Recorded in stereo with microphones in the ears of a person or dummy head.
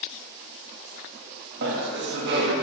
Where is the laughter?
60° right (ahead or behind), 1.5 m.